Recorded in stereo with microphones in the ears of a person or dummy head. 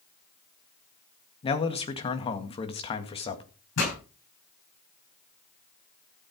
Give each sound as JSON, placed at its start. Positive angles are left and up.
{"t": 1.4, "sound": "a man speaking", "side_deg": 30, "distance_m": 2.0}
{"t": 3.8, "sound": "a pop", "side_deg": 65, "distance_m": 9.0}